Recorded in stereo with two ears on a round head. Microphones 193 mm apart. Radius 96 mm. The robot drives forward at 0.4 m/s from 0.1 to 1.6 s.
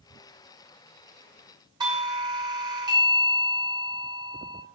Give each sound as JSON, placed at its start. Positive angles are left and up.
{"t": 1.8, "sound": "a doorbell", "side_deg": -20, "distance_m": 0.6}